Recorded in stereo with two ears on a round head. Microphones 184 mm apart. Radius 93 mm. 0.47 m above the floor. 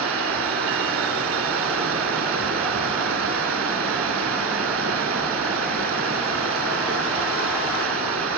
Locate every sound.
0.0 s running water: 70° right (ahead or behind), 0.8 m